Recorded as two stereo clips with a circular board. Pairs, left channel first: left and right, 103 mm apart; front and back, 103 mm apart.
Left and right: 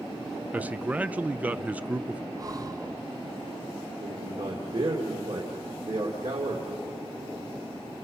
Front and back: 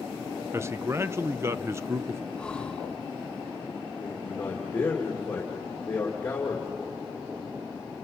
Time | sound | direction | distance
0.5 | a man speaking | 150° right | 0.5 m
2.4 | breathing | 75° right | 0.7 m
4.0 | a man speaking | 75° right | 2.5 m